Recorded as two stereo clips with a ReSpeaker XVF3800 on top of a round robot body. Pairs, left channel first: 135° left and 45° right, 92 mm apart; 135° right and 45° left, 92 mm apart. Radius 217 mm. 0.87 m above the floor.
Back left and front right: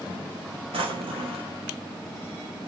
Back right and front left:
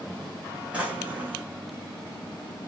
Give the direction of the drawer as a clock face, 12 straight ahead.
1 o'clock.